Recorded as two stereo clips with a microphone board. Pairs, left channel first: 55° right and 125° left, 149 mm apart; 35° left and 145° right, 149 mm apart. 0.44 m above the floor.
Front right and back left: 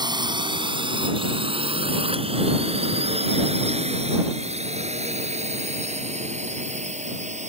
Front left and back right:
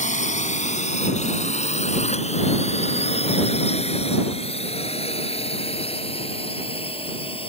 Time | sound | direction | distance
0.0 | a drone | 65° left | ?